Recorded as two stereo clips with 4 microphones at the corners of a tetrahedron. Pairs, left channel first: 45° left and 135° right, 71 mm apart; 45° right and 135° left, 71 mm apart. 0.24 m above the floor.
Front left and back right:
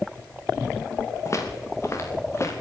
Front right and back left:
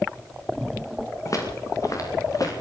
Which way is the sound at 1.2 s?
5° right.